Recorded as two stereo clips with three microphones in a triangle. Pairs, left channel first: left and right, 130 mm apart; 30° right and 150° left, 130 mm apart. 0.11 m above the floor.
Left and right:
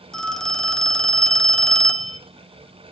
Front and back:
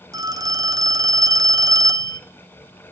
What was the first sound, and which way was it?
A phone ringing, 170° left.